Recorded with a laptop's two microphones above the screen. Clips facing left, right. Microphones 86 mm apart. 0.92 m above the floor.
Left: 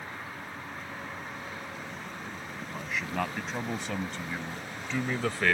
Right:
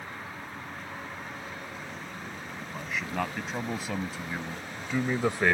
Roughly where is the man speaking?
Centre.